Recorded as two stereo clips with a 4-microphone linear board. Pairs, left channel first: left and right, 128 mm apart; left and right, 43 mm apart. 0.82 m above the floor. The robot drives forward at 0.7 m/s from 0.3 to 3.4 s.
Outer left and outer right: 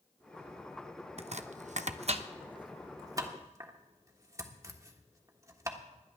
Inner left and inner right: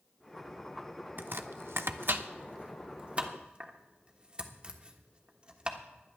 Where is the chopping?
55° right (ahead or behind), 0.7 m; by 5.8 s 25° right (ahead or behind), 1.4 m.